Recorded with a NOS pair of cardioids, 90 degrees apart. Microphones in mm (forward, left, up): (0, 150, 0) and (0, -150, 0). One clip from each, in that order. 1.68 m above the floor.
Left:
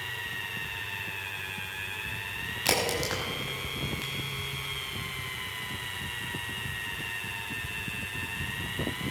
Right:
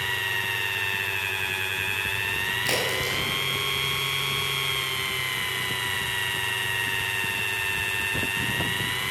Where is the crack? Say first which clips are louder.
Right 3 dB; 35° left, 6 m.